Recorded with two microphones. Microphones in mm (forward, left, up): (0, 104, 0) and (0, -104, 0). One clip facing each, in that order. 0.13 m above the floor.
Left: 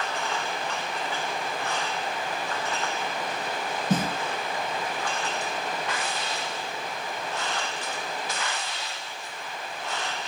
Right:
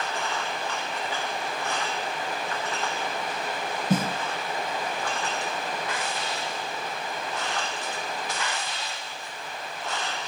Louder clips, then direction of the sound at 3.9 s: Right 1 dB; 10° right (ahead or behind).